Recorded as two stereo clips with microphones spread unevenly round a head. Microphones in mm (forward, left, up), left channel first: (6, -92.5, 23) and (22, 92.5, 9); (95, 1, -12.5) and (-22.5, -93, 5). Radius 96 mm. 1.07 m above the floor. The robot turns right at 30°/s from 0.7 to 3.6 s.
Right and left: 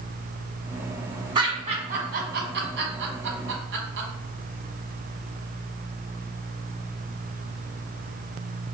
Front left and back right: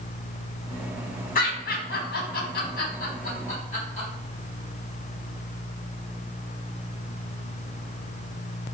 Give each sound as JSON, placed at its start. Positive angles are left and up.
{"t": 1.4, "sound": "laughter", "azimuth_deg": 20, "distance_m": 1.2}